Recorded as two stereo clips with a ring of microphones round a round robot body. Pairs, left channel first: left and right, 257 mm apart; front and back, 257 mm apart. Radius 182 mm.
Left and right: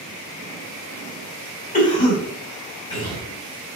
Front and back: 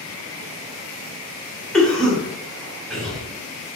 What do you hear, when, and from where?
1.7 s a cough: 85° left, 1.5 m